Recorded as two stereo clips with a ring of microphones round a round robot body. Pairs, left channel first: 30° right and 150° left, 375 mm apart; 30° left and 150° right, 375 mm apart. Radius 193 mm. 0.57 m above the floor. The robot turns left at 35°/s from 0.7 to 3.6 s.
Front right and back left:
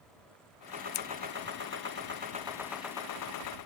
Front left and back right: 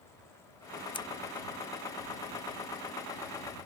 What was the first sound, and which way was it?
Scissors, 50° right.